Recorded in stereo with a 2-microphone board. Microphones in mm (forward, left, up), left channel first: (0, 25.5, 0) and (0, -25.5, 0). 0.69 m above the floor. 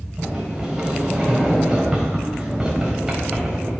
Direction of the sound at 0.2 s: 10° right (ahead or behind).